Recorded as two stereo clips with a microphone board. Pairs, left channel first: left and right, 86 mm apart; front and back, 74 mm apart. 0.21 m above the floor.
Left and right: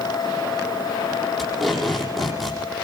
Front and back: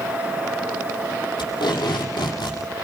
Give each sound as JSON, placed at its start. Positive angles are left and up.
{"t": 1.4, "sound": "tape being pulled", "azimuth_deg": 0, "distance_m": 8.0}